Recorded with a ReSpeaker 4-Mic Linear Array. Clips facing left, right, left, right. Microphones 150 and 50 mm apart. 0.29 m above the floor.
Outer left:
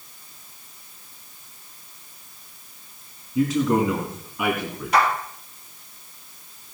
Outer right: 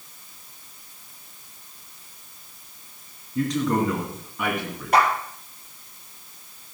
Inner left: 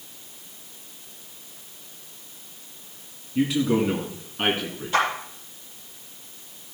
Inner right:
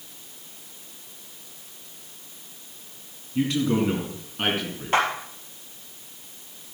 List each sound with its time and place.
3.4 s a man speaking: 5° left (ahead or behind), 2 m
4.9 s a clap: 60° right (ahead or behind), 6.5 m